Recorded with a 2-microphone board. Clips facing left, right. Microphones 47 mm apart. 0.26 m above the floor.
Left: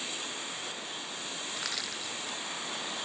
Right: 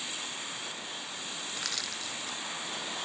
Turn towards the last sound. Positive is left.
turn(degrees=5)  # may be behind; listen again after turning